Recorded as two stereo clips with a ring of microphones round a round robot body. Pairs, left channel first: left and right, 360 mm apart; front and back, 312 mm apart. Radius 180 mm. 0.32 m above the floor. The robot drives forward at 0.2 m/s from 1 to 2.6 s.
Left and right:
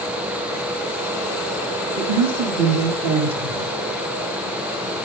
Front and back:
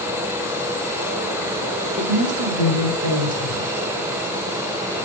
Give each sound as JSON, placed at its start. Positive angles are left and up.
{"t": 2.0, "sound": "a woman speaking", "azimuth_deg": -140, "distance_m": 4.5}